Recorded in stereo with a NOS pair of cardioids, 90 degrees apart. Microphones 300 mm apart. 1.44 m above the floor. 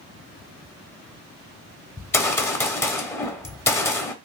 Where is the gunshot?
10° left, 0.7 m.